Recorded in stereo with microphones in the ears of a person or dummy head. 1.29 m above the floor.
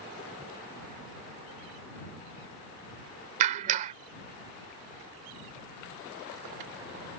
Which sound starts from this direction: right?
A clap, at 3.4 s.